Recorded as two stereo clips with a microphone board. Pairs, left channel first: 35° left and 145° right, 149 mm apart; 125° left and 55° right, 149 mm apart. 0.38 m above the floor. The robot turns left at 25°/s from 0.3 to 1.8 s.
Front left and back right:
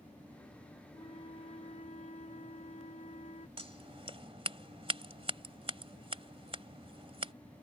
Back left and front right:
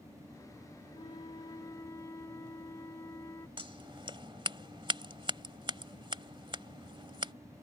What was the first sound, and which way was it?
A flute, 85° left.